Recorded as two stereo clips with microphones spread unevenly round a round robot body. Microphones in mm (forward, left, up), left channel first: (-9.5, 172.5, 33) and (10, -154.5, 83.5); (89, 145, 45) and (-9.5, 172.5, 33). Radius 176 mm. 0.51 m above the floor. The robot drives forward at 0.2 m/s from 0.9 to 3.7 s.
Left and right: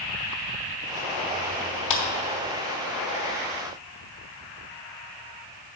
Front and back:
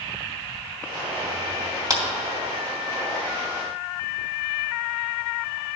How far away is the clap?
About 2.5 m.